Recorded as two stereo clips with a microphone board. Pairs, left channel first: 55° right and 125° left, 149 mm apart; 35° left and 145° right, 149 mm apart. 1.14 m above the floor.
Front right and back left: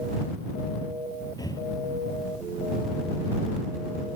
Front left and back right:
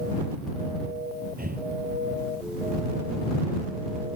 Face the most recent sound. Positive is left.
turn(degrees=-125)